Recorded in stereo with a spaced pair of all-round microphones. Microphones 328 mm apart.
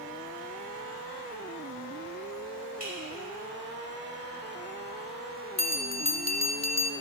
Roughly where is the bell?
Left.